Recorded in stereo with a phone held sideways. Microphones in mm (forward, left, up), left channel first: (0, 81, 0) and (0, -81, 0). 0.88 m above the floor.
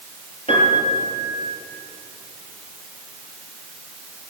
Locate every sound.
0.5 s a piano: 35° left (ahead or behind), 4 m